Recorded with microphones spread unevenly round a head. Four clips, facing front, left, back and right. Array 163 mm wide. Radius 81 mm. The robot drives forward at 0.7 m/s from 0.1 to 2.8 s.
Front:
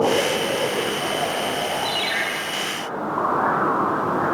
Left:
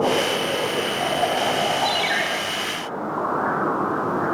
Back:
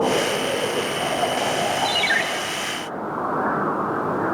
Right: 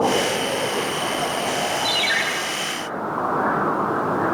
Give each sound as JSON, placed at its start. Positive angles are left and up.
{"t": 1.9, "sound": "a ringtone", "azimuth_deg": -170, "distance_m": 2.0}